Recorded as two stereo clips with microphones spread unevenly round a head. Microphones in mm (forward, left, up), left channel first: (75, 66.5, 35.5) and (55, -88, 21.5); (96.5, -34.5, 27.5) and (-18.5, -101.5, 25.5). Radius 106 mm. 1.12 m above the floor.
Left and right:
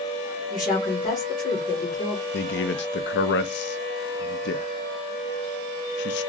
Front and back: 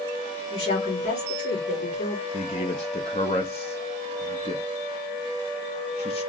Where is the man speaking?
90° left, 0.6 m.